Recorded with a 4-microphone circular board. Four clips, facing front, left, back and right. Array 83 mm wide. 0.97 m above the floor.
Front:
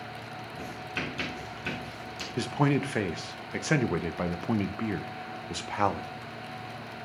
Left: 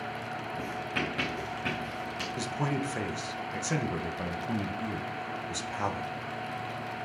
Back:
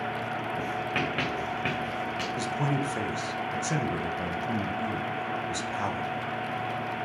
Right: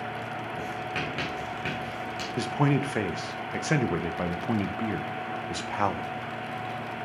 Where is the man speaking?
45° right, 0.8 m.